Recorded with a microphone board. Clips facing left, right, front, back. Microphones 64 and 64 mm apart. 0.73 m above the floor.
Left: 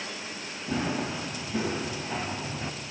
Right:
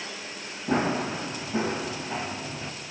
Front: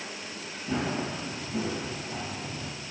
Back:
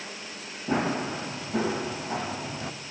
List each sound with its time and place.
0.7 s running footsteps: 135° right, 2.5 m; by 2.7 s 165° left, 1.9 m